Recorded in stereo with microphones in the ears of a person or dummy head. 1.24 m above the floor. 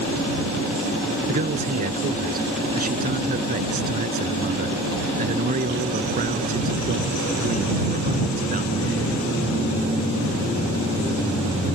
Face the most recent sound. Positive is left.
turn(degrees=-40)  # may be behind; listen again after turning